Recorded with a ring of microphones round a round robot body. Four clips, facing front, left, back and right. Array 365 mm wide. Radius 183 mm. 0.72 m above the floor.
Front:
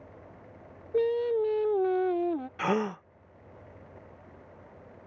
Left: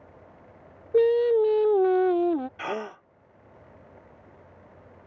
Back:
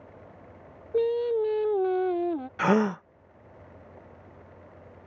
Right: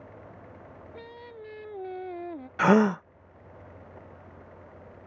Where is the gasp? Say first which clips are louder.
Right 12 dB, back 7 dB; 110° right.